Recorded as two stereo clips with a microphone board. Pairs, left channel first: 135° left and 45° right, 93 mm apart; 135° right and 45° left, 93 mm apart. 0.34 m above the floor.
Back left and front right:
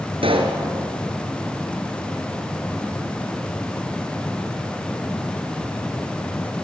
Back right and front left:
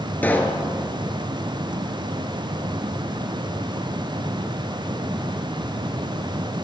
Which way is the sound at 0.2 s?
60° right.